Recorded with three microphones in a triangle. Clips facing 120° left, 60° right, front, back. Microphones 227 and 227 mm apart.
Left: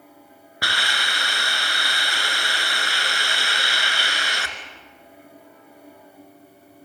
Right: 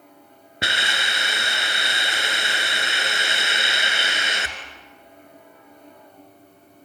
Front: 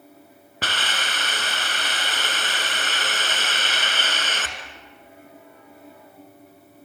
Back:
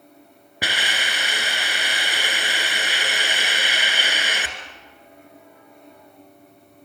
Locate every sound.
0.6 s a hiss: 110° right, 2.0 m